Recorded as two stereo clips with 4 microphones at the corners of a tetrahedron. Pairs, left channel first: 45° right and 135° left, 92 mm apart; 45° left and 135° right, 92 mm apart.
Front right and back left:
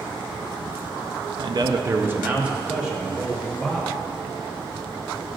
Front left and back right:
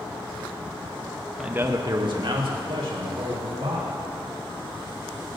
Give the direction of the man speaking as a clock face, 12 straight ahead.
7 o'clock.